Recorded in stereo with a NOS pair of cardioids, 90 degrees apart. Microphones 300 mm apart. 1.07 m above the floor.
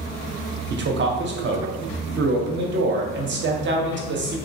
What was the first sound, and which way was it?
A man speaking, 40° right.